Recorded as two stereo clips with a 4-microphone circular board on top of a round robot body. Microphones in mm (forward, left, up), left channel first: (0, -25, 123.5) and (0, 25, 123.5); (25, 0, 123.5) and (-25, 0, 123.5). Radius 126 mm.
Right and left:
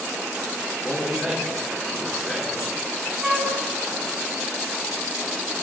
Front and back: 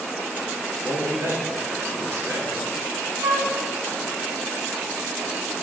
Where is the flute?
170° left, 1.8 m.